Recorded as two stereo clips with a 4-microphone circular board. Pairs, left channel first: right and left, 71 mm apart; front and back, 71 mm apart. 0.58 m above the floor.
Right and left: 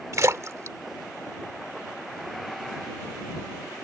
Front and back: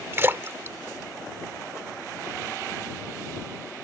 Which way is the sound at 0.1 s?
130° left.